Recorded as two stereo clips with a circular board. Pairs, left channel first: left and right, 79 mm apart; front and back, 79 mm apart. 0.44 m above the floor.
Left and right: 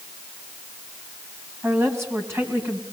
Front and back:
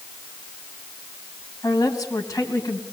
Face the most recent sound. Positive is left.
turn(degrees=-40)